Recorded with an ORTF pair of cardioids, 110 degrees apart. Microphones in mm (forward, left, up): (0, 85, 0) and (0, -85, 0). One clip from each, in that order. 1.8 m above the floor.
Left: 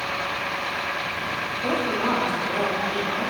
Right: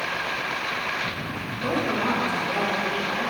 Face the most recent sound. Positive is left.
turn(degrees=-5)